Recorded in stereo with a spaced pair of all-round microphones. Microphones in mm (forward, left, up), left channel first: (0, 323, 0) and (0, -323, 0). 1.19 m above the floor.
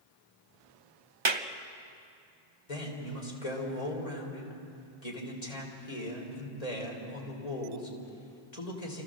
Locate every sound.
1.2 s a clap: 45° right (ahead or behind), 0.9 m
2.7 s a man speaking: 80° left, 4 m